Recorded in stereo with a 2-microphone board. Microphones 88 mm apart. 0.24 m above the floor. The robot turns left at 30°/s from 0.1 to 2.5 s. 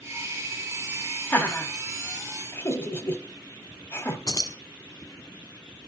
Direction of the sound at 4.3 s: 50° left (ahead or behind).